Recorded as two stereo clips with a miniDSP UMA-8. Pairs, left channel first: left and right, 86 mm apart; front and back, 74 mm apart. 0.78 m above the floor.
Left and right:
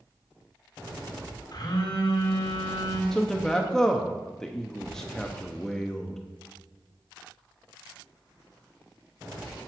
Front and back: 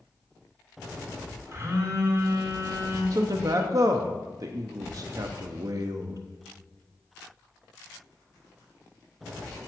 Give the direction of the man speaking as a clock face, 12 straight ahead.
6 o'clock.